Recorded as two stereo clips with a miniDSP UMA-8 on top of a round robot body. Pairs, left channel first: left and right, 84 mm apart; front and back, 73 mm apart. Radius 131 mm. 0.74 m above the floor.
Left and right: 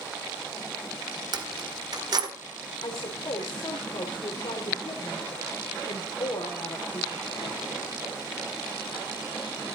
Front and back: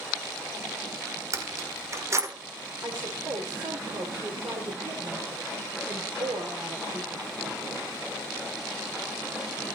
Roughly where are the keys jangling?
Behind right.